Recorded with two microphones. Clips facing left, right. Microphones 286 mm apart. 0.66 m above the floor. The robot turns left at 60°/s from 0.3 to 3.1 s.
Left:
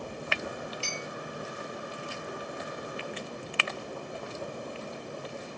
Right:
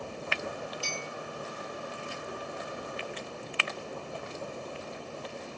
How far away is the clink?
About 1.9 m.